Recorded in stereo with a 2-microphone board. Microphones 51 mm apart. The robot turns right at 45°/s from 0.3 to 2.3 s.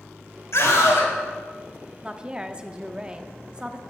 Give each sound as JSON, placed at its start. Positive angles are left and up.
{"t": 0.5, "sound": "a scream", "side_deg": 60, "distance_m": 4.0}
{"t": 2.0, "sound": "a woman speaking", "side_deg": -20, "distance_m": 0.6}